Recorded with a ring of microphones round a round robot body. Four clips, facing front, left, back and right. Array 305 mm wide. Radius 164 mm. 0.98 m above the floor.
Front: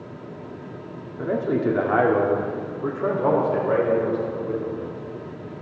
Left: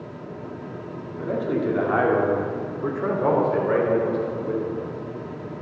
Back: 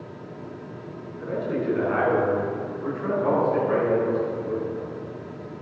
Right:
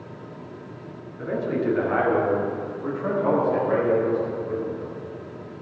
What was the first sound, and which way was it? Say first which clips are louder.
A man speaking: left 1 dB, front 5 dB; 15° left.